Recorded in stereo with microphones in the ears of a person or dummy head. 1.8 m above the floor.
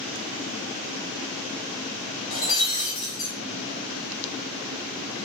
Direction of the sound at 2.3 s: 25° left (ahead or behind).